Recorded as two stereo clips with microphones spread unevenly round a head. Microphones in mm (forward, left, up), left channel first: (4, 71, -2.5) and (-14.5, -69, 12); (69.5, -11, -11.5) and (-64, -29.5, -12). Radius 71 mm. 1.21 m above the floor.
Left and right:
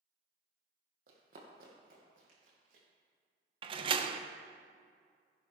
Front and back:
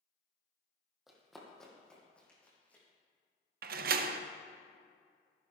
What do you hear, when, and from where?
1.1 s running footsteps: 85° right, 3 m; by 2.8 s 70° right, 4.5 m
3.6 s a door slam: 155° right, 0.6 m